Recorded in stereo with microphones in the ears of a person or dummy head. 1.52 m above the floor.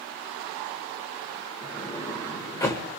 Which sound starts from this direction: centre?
A sliding door, at 1.6 s.